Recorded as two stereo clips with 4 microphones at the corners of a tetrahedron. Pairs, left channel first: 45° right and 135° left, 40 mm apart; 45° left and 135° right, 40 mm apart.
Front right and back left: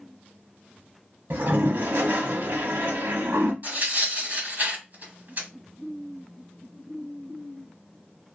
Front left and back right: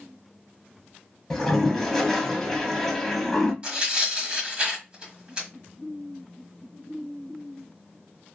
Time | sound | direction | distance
1.3 | a toilet flushing | 125° left | 0.8 m
3.6 | tearing paper | 165° left | 1.4 m